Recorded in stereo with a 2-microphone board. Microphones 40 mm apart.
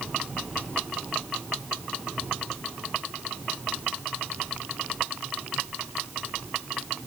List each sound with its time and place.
Only background noise.